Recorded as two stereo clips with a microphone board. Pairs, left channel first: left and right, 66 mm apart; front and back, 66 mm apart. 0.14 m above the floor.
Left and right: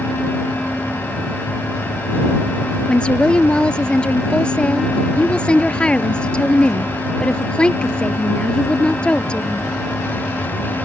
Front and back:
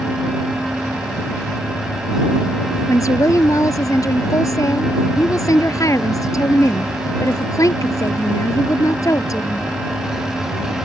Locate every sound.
2.9 s a woman speaking: 15° left